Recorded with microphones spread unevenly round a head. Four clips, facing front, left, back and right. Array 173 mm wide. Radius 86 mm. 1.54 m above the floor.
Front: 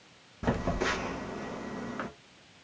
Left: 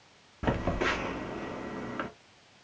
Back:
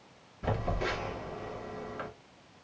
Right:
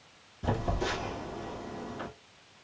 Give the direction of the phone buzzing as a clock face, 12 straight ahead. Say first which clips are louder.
Left 2 dB, front 3 dB; 10 o'clock.